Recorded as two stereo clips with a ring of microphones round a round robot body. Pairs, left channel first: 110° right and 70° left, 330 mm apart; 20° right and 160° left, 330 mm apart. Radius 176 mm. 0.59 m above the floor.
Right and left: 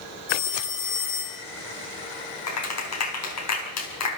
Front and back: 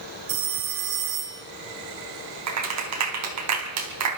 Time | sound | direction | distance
0.3 | a phone ringing | 170° right | 2.5 m
2.5 | a clap | 160° right | 4 m